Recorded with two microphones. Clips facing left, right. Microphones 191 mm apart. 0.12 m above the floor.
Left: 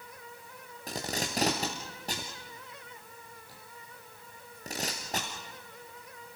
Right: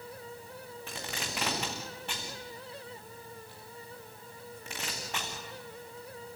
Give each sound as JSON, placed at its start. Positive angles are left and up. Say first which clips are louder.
{"t": 0.9, "sound": "tape being pulled", "louder": "left 7 dB", "side_deg": 40, "distance_m": 4.5}